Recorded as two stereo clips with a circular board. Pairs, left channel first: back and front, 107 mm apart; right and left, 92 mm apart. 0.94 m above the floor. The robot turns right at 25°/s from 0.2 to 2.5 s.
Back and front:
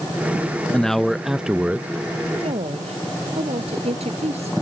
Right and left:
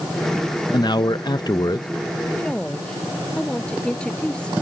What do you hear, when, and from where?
0.7 s a man speaking: 100° right; by 1.9 s 70° right
2.4 s a woman speaking: 15° right; by 4.5 s 10° right